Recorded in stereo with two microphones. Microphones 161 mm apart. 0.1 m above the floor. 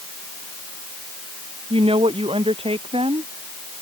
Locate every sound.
1.7 s a woman speaking: 35° right (ahead or behind)